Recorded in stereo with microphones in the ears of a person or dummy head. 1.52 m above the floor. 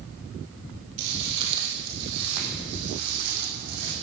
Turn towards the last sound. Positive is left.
turn(degrees=-50)  # may be behind; listen again after turning